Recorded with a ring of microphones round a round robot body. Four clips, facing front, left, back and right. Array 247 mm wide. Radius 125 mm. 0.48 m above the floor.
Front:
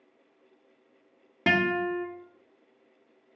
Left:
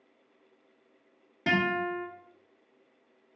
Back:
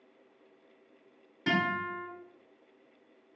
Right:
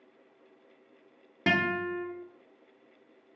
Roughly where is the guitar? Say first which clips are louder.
Left 1 dB, front 5 dB; ahead right.